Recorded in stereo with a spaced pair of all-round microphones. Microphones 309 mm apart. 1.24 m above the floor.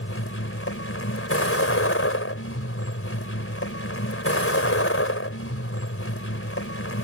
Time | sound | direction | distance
0.0 | a vehicle | 45° left (ahead or behind) | ?